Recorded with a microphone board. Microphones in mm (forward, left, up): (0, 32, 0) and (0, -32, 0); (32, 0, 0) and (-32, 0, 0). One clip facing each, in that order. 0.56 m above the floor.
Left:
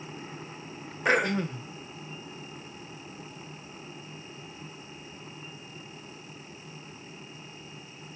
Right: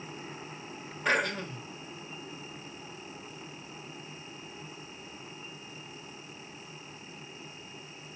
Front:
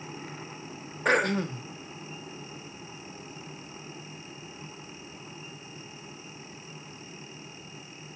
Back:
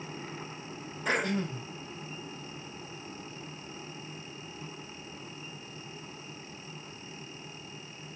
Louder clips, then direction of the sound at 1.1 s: Left 4 dB, front 5 dB; 25° left.